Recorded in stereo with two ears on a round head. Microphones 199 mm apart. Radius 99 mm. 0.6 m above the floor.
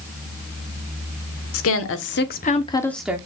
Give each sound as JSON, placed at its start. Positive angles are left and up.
{"t": 1.5, "sound": "a woman speaking", "side_deg": 65, "distance_m": 1.7}